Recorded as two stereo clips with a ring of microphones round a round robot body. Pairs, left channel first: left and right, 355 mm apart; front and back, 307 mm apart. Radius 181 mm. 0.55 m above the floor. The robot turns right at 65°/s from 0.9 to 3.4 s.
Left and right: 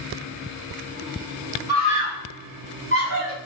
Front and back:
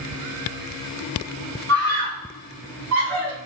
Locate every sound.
1.7 s a scream: 135° left, 2 m; by 3.4 s 115° right, 2 m